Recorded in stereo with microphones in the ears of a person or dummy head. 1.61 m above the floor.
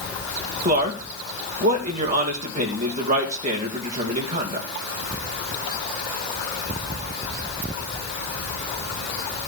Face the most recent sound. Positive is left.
turn(degrees=-40)  # may be behind; listen again after turning